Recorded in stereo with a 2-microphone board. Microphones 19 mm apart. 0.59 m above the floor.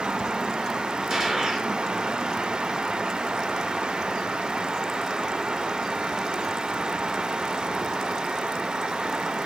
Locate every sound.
1.1 s a gunshot: 40° right (ahead or behind), 2 m